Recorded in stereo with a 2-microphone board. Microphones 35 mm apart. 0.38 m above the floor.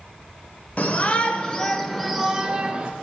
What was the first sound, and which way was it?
A shout, 45° left (ahead or behind).